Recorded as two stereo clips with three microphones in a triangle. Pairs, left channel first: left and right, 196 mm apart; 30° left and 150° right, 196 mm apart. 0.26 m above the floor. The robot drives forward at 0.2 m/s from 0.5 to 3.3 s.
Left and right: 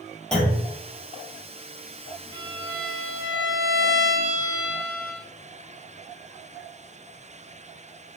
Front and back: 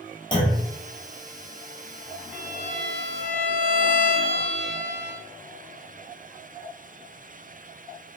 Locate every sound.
0.3 s a clunk: 10° left, 1.0 m
2.3 s a violin: 160° right, 1.8 m